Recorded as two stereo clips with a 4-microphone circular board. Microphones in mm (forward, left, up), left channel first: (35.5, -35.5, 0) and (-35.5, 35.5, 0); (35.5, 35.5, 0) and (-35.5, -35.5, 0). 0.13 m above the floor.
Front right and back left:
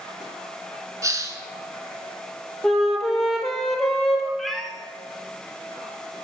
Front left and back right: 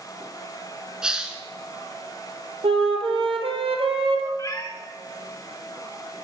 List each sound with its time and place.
1.0 s a hiss: 150° left, 0.8 m
2.6 s a flute: 130° right, 1.1 m
4.4 s a cat meowing: 40° left, 0.7 m